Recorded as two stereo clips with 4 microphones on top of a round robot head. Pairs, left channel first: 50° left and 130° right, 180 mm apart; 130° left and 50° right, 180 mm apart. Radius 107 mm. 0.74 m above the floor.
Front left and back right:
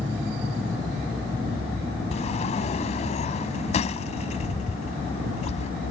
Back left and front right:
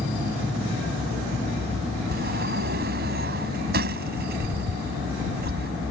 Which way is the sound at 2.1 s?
10° right.